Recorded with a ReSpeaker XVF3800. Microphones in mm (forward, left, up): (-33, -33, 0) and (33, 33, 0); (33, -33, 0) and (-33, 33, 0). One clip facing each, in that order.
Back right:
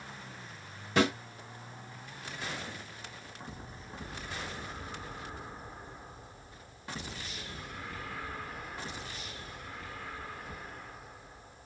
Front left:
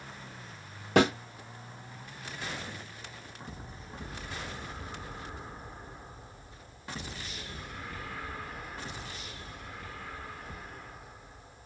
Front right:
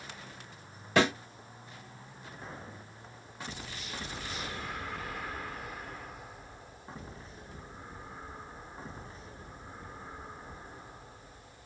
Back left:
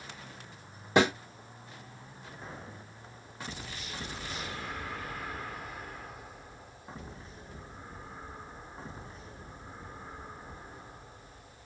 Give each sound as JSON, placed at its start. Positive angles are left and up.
{"t": 1.0, "sound": "a snare drum", "azimuth_deg": 70, "distance_m": 1.4}